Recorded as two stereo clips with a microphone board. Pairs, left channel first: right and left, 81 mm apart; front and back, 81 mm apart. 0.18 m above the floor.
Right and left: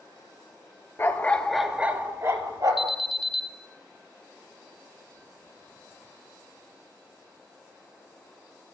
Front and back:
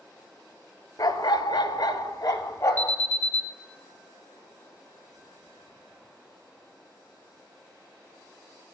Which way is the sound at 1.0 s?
35° right.